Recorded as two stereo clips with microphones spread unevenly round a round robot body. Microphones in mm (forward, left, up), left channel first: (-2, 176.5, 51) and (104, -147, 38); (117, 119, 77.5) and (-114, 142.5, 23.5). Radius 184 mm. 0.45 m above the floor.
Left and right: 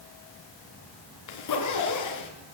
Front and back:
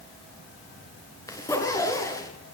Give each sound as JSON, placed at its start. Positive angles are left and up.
{"t": 1.3, "sound": "a zipper", "azimuth_deg": 70, "distance_m": 5.5}